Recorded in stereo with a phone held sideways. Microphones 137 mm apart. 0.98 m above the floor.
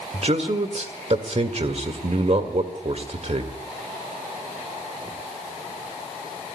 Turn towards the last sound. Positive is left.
turn(degrees=-50)  # may be behind; listen again after turning